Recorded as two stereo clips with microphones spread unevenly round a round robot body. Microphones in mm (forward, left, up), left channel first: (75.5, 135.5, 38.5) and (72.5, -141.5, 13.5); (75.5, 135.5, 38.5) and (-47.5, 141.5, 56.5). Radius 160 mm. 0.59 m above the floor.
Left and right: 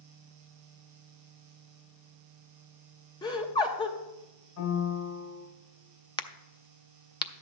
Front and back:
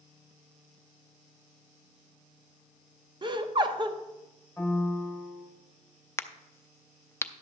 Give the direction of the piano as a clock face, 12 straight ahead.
9 o'clock.